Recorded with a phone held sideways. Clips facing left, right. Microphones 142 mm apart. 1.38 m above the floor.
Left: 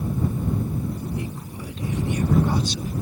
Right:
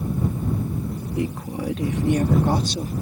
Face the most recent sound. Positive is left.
turn(degrees=-35)  # may be behind; listen again after turning